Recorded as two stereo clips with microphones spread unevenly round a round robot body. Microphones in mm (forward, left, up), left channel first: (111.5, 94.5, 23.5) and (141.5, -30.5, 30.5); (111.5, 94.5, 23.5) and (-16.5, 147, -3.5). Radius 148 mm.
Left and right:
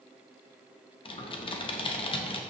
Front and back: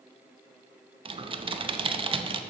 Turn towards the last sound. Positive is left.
turn(degrees=140)